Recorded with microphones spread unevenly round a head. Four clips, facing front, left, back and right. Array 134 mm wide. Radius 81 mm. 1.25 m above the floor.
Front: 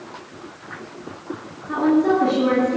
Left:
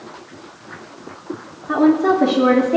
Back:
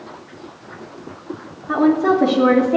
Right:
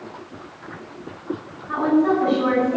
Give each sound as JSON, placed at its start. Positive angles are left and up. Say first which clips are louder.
{"t": 1.7, "sound": "a woman speaking", "louder": "left 4 dB, back 2 dB", "azimuth_deg": 100, "distance_m": 3.5}